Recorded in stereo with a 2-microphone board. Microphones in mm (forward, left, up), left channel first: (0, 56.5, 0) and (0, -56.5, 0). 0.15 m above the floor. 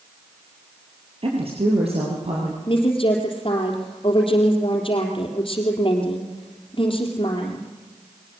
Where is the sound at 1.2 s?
55° right (ahead or behind), 4 m; by 2.6 s 65° right (ahead or behind), 5.5 m.